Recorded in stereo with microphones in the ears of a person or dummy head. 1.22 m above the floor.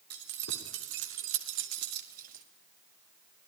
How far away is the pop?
No pop in this recording.